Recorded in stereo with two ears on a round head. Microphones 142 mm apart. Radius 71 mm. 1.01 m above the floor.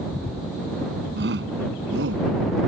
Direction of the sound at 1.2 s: 80° right.